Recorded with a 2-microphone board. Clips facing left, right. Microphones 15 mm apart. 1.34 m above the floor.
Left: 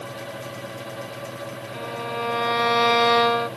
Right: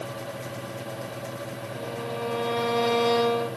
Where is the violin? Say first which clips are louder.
Left 4 dB; 75° left (ahead or behind), 1.1 m.